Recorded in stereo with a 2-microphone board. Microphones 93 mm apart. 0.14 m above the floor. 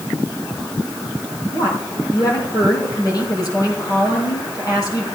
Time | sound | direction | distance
1.5 | a woman speaking | 45° left (ahead or behind) | 5 m